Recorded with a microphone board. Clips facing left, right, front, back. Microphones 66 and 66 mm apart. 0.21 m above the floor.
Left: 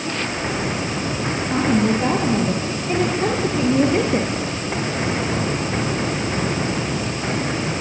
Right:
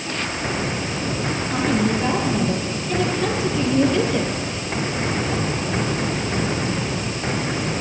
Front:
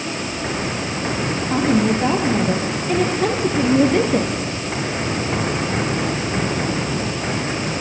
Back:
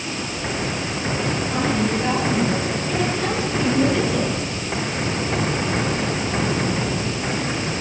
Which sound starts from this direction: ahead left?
A woman speaking, at 1.5 s.